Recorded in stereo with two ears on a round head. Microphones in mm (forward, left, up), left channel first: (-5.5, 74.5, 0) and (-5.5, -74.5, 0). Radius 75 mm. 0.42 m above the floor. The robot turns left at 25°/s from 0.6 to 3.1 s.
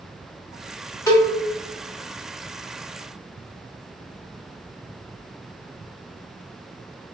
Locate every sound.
1.1 s a cowbell: 20° left (ahead or behind), 1.0 m